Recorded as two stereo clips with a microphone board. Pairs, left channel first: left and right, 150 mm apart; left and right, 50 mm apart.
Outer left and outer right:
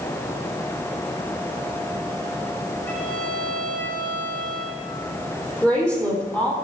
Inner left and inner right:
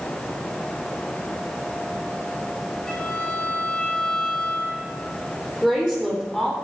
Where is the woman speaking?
10° left (ahead or behind), 3.5 m.